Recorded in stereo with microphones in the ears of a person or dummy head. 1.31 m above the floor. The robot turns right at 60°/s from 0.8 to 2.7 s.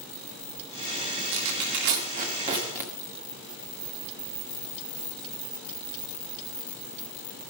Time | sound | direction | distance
1.3 | tearing paper | 80° right | 1.8 m